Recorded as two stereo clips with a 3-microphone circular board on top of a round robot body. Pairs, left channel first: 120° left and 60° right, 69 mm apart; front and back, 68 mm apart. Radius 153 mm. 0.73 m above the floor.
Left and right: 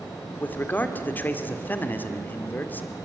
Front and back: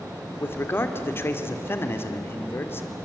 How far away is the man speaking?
About 2.0 m.